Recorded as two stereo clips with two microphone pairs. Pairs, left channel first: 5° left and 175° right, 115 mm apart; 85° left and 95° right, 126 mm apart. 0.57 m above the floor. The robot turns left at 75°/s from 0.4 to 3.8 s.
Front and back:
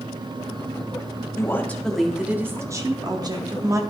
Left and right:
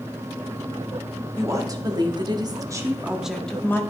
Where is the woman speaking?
35° right, 0.9 m; by 3.8 s 140° left, 0.9 m.